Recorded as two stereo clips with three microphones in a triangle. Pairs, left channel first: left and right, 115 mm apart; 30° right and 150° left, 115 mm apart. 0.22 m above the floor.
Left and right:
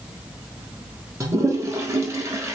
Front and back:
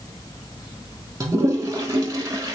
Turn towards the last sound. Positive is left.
turn(degrees=-150)